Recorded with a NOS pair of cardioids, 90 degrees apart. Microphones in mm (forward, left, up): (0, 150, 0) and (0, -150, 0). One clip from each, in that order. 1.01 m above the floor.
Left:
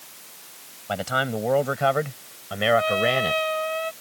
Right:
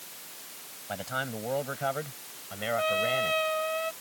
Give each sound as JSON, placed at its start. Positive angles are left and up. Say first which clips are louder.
{"t": 0.9, "sound": "a man speaking", "louder": "left 9 dB", "azimuth_deg": 55}
{"t": 2.8, "sound": "a trumpet", "louder": "left 5 dB", "azimuth_deg": 25}